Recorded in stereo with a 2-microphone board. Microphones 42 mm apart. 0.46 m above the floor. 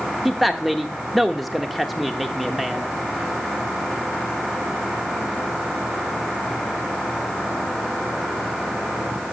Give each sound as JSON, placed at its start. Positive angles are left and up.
{"t": 0.2, "sound": "a man speaking", "side_deg": 0, "distance_m": 0.8}